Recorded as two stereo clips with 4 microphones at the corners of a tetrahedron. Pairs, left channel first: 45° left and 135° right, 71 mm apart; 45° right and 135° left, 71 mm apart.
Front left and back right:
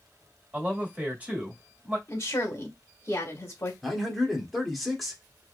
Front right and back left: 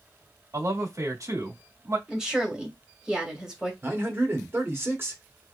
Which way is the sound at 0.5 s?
160° left.